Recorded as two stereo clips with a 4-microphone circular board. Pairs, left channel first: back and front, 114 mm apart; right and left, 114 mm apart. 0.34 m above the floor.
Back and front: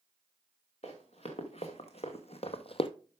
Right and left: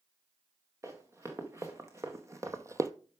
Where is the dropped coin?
I don't hear a dropped coin.